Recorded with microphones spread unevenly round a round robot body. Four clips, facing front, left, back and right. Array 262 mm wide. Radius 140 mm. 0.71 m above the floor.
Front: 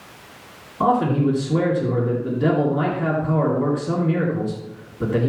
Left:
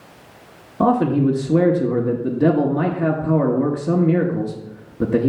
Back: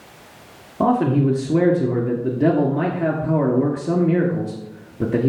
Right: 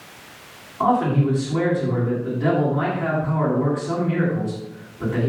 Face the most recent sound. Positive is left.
turn(degrees=125)